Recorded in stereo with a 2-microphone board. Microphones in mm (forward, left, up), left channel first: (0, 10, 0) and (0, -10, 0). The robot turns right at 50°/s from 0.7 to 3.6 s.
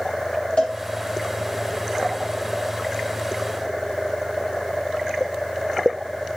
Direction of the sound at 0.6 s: 60° left (ahead or behind).